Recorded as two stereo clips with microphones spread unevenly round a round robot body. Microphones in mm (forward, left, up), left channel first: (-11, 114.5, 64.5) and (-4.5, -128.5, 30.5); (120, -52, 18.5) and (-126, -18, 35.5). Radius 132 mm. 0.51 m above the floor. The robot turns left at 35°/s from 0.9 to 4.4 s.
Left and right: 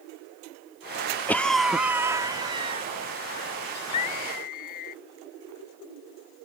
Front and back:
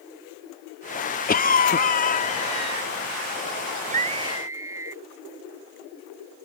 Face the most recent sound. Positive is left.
turn(degrees=90)